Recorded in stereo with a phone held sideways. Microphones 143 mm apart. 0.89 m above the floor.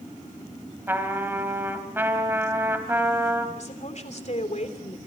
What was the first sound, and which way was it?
A trumpet, 15° right (ahead or behind).